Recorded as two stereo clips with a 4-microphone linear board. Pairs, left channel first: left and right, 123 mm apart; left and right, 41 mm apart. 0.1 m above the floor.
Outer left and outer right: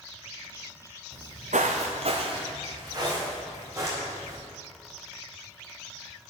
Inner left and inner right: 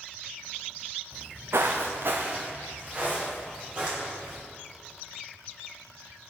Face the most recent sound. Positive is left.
turn(degrees=-25)  # may be behind; listen again after turning